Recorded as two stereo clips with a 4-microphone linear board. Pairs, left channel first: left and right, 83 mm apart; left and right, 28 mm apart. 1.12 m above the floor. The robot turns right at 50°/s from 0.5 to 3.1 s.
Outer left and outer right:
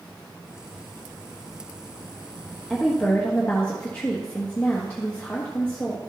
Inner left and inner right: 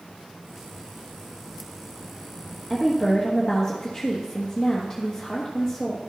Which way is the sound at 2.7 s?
5° right (ahead or behind).